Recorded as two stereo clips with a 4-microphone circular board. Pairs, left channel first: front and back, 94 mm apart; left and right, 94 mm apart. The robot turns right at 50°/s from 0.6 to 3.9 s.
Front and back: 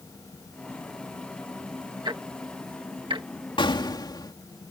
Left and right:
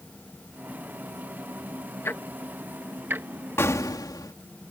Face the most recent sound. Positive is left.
turn(degrees=45)